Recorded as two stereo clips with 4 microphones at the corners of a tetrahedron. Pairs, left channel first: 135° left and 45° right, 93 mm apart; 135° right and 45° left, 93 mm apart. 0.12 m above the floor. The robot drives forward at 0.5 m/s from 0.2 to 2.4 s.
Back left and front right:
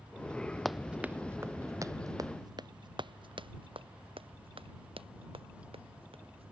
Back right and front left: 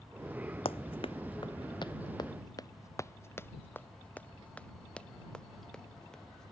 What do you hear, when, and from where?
0.7 s running footsteps: 135° right; by 6.5 s 50° right